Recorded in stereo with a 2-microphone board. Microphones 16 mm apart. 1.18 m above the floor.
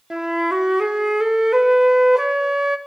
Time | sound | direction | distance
0.1 | a flute | 35° right (ahead or behind) | 0.6 m